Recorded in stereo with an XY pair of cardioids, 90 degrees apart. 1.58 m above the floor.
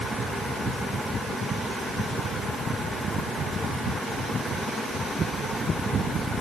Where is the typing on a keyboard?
I don't hear typing on a keyboard.